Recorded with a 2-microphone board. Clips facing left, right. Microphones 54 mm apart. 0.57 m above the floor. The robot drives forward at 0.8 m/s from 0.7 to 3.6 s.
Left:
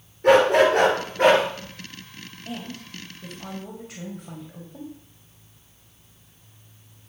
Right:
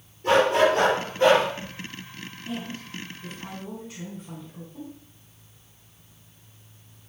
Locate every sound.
0.2 s a dog barking: 65° left (ahead or behind), 2.5 m; by 1.4 s 55° left (ahead or behind), 3 m
2.5 s a woman speaking: 60° left (ahead or behind), 3 m; by 4.9 s 75° left (ahead or behind), 2.5 m